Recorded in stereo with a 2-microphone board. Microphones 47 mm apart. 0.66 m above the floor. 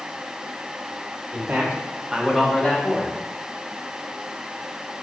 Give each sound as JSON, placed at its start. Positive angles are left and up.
{"t": 1.3, "sound": "a man speaking", "side_deg": -50, "distance_m": 1.2}